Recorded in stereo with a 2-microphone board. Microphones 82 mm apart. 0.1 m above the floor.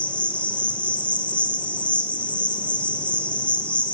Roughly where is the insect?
Centre.